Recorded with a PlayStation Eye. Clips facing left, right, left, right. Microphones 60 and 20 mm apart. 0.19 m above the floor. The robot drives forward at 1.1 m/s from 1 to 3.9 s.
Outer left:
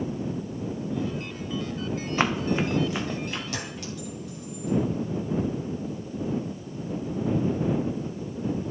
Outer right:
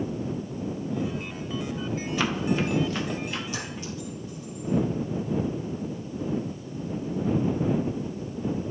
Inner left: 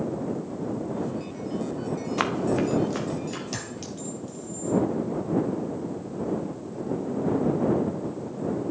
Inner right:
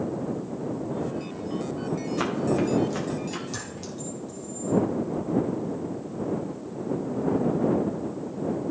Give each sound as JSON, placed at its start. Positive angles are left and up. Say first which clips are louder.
{"t": 2.2, "sound": "running footsteps", "louder": "outer left 2 dB, inner left 1 dB", "side_deg": 35, "distance_m": 1.5}
{"t": 3.5, "sound": "a clink", "louder": "even, inner left 1 dB", "side_deg": 70, "distance_m": 3.0}